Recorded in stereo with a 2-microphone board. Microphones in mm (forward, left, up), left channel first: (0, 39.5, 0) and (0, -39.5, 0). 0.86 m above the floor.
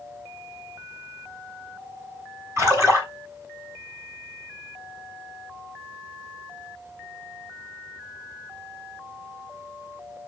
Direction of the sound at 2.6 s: 35° right (ahead or behind).